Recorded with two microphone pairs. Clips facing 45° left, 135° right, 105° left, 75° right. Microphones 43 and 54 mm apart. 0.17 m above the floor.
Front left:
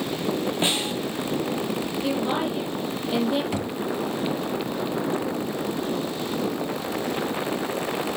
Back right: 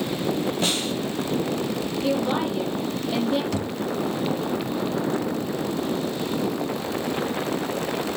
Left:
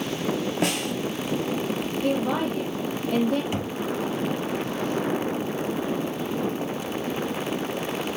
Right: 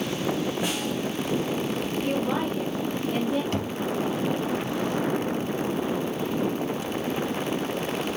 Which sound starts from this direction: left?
A snare drum, at 0.6 s.